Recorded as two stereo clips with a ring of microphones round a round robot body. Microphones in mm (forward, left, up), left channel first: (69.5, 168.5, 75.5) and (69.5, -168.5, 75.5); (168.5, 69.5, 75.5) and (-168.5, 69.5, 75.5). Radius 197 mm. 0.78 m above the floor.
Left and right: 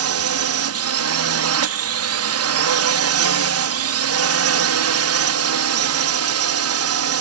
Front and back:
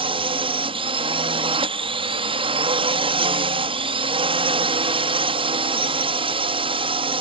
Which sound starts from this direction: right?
A drone, at 0.0 s.